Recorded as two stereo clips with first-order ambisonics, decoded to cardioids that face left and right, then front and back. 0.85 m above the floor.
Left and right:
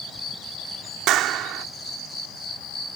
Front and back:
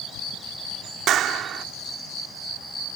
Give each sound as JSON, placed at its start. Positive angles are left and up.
{"t": 1.1, "sound": "a clap", "azimuth_deg": -130}